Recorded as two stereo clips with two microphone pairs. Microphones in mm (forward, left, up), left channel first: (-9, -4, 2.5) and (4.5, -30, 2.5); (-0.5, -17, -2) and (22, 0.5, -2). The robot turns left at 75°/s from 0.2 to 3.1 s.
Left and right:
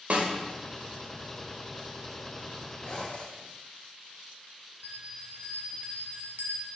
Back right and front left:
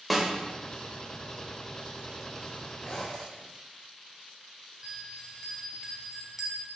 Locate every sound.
0.1 s a snare drum: 45° right, 1.2 m; by 0.3 s 55° right, 1.2 m
2.8 s a zipper: straight behind, 3 m; by 3.5 s 160° left, 3 m
4.8 s a bell: 40° right, 1.1 m